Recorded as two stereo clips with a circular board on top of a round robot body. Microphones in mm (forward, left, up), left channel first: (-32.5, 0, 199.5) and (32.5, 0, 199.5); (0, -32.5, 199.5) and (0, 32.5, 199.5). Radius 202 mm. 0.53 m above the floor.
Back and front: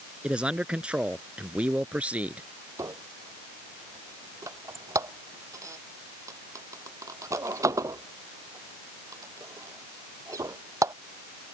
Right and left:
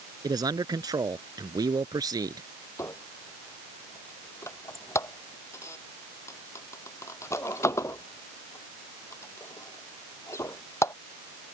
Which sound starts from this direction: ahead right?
A squeak, at 2.8 s.